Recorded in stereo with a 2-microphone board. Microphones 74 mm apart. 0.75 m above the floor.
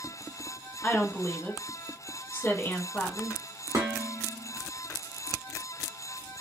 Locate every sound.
0.8 s a woman speaking: 35° left (ahead or behind), 1.4 m
3.7 s dishes clattering: 45° right (ahead or behind), 1.1 m